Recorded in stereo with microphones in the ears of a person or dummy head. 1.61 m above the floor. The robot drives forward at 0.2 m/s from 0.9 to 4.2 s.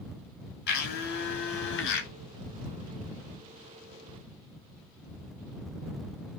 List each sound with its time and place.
0.7 s a blender: 60° left (ahead or behind), 1.0 m; by 2.1 s 70° left (ahead or behind), 0.9 m